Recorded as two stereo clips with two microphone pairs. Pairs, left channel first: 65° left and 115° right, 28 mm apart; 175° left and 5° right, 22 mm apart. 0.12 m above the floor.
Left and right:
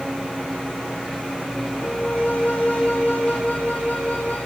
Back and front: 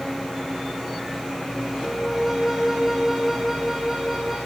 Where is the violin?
75° left, 3.5 m.